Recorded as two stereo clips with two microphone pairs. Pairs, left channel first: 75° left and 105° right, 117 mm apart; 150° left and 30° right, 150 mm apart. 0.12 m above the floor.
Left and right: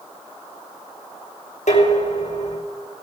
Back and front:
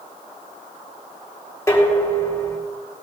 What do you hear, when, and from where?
1.7 s dishes clattering: 80° left, 4.5 m